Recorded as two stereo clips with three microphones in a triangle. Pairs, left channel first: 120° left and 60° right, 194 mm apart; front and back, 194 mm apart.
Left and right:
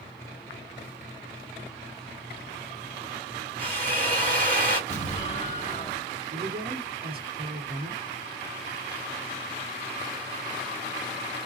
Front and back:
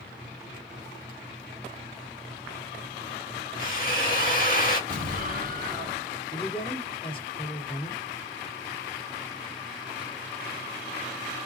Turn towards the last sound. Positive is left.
turn(degrees=-55)